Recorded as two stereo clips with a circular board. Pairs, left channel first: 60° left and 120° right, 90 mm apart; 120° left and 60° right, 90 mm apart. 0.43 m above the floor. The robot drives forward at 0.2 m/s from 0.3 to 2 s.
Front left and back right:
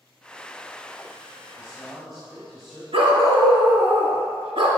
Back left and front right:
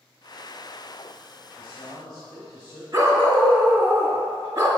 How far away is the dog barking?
About 1.5 m.